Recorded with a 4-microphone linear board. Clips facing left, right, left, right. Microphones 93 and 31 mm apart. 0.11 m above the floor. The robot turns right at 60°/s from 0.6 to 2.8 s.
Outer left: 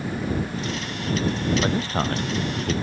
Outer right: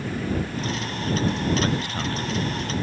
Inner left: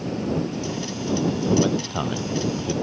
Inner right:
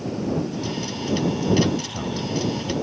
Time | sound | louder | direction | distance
1.6 | a man speaking | outer left 2 dB, inner left 1 dB | 20° left | ?